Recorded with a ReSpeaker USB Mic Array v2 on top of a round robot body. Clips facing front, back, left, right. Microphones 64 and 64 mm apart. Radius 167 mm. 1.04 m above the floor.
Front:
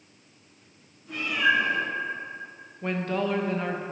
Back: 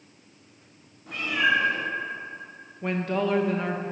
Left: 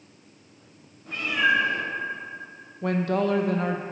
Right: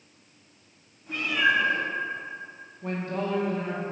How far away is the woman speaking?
About 1.1 m.